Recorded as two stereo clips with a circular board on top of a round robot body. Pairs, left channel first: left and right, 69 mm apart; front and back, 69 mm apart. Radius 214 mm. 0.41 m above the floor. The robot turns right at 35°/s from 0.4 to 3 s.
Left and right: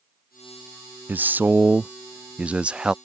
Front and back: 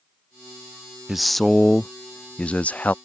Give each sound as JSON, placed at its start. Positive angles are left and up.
{"t": 1.1, "sound": "a man speaking", "azimuth_deg": -95}